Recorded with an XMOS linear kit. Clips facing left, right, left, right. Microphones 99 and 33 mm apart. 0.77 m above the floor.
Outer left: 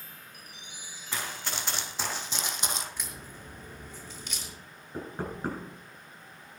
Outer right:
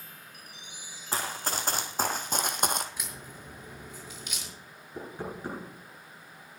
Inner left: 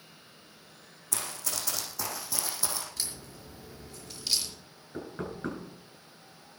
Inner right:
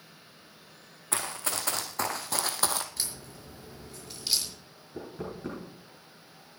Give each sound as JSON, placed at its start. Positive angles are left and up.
{"t": 1.1, "sound": "running footsteps", "side_deg": -40, "distance_m": 2.5}
{"t": 3.0, "sound": "a crack", "side_deg": -10, "distance_m": 5.5}
{"t": 4.9, "sound": "knocking", "side_deg": 50, "distance_m": 8.0}